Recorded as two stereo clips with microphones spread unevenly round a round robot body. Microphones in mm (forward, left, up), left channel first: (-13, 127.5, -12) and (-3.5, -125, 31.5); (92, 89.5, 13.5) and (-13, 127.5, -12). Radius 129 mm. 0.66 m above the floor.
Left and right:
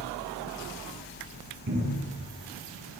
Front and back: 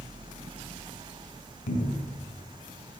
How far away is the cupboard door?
About 7.5 m.